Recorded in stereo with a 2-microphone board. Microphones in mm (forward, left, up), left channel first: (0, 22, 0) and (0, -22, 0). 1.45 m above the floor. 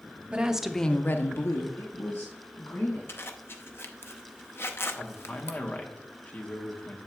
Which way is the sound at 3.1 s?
65° left (ahead or behind).